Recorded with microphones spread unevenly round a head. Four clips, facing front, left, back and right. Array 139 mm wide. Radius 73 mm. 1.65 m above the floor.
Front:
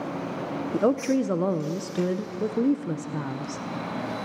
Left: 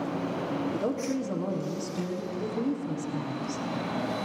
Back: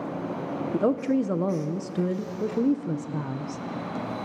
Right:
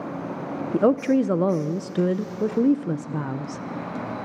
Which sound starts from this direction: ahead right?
A woman speaking, at 0.7 s.